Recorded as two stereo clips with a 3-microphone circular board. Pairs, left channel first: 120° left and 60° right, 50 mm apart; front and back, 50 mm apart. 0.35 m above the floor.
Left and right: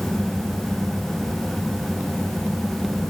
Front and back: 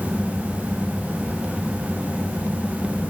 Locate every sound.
Only background noise.